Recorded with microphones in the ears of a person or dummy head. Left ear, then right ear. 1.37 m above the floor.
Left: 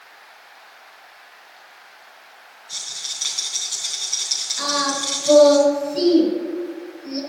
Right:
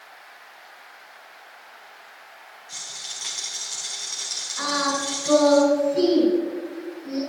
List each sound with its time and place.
2.7 s a rattle: 20° right (ahead or behind), 3.5 m
4.6 s singing: 20° right (ahead or behind), 5.5 m